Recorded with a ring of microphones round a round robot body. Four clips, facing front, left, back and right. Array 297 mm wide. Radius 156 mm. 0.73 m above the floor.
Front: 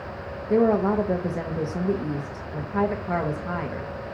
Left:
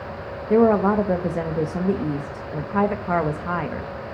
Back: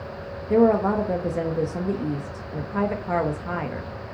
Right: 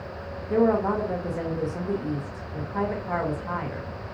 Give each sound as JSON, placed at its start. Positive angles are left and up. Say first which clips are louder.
{"t": 0.5, "sound": "a woman speaking", "louder": "left 5 dB, back 2 dB", "azimuth_deg": 100, "distance_m": 1.1}